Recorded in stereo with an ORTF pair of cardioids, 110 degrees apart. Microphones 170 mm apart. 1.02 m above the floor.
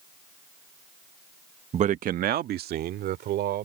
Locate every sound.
1.7 s a man speaking: 35° right; by 3.7 s 70° right